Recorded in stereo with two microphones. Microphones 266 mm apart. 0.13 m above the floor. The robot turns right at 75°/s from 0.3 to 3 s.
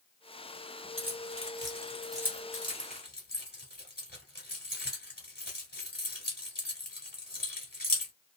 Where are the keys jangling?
50° right (ahead or behind), 1.5 m; by 8.1 s 35° left (ahead or behind), 1.5 m.